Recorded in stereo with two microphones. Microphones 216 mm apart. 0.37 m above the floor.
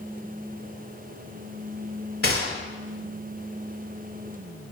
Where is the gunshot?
70° left (ahead or behind), 1.1 m.